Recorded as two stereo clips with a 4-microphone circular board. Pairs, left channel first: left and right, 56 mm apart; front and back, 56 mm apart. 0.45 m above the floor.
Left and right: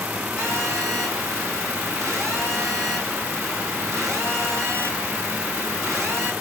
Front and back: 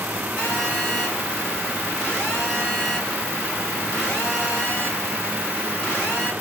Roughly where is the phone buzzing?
Ahead right.